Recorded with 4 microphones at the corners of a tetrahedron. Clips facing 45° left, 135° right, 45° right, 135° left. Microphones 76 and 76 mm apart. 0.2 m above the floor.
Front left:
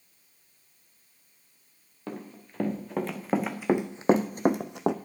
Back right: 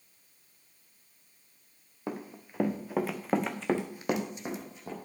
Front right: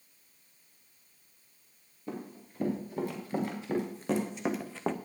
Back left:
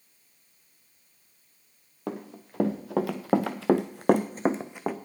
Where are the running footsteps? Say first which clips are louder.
Back right 1 dB, back left 5 dB; 150° left, 2.5 m; by 5.0 s 50° left, 0.9 m.